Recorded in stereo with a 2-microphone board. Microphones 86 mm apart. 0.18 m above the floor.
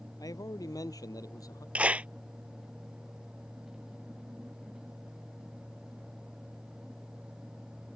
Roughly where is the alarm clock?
No alarm clock in this recording.